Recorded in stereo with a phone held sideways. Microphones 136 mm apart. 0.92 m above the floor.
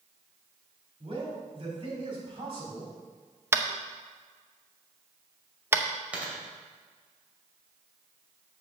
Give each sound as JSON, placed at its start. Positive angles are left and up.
{"t": 1.0, "sound": "a man speaking", "side_deg": -40, "distance_m": 3.5}
{"t": 3.5, "sound": "tapping", "side_deg": -20, "distance_m": 0.6}
{"t": 6.1, "sound": "a dropped coin", "side_deg": -10, "distance_m": 2.5}